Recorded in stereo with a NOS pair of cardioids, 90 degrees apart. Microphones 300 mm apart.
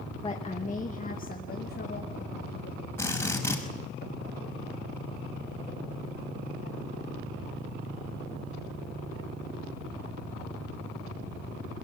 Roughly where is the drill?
Ahead.